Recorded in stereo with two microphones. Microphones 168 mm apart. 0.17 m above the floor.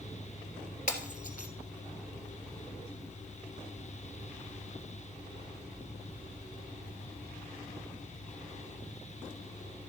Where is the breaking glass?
50° left (ahead or behind), 1.7 m.